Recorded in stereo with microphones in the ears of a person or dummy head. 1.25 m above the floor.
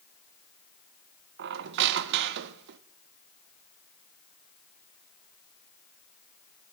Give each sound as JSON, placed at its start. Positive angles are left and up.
{"t": 1.4, "sound": "a squeak", "side_deg": -55, "distance_m": 0.5}